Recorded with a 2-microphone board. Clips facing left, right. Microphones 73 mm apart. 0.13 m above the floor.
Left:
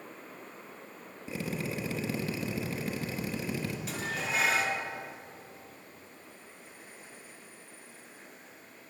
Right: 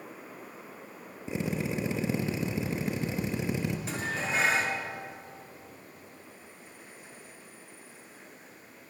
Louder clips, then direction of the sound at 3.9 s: Right 2 dB; 30° right (ahead or behind).